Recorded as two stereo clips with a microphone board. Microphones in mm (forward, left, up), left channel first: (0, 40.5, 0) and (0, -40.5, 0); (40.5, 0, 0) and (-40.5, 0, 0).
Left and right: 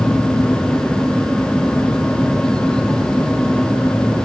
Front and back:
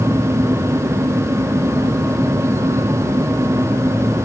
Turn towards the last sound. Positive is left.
No sound to turn to.